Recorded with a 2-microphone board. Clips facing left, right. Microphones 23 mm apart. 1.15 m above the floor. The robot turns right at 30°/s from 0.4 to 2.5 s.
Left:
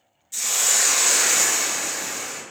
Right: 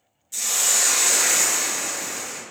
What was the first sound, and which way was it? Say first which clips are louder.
A hiss: left 1 dB; 5° left.